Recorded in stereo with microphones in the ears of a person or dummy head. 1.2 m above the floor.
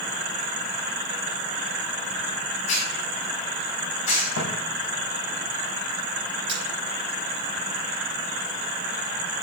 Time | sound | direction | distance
2.7 | a hiss | 40° left (ahead or behind) | 3 m
4.4 | footsteps | 55° left (ahead or behind) | 2.5 m
6.5 | cutlery clinking | 35° right (ahead or behind) | 3 m